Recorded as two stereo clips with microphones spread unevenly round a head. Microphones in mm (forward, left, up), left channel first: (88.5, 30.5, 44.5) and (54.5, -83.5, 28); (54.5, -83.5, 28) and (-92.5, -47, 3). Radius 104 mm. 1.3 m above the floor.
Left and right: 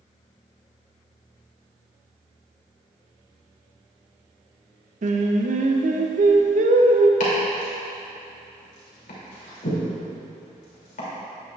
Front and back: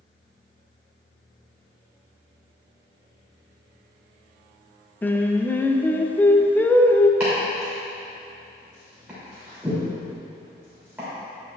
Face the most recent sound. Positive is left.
turn(degrees=85)